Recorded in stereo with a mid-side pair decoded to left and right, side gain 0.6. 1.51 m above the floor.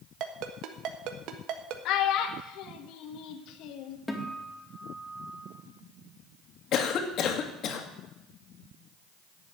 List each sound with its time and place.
0.2 s a ringtone: 65° right, 1.4 m
1.9 s a child speaking: 70° left, 1.7 m
4.1 s a guitar: 10° left, 2.5 m
6.7 s a cough: 55° left, 2 m